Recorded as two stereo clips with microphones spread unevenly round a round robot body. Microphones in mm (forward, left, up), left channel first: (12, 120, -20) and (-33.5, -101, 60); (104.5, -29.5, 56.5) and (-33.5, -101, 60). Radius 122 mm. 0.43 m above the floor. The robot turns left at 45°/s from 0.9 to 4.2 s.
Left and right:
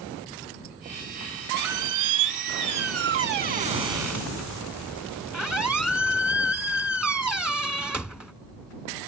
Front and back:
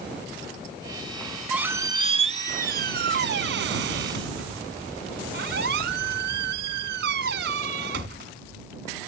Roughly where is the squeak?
Ahead right.